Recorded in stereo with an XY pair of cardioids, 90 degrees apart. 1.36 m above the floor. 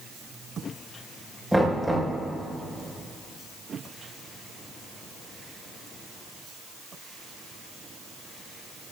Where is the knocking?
5° right, 5.5 m.